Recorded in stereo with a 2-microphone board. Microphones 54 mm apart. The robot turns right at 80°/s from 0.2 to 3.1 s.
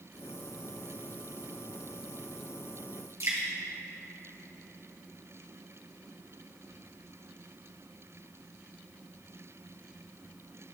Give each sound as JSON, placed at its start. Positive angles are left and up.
{"t": 3.2, "sound": "dripping", "side_deg": -60, "distance_m": 3.0}